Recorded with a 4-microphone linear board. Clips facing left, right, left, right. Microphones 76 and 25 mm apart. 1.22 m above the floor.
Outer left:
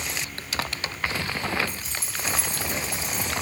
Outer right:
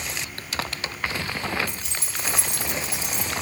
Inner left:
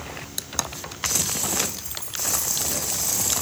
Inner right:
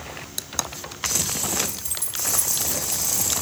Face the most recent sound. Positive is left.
turn(degrees=-80)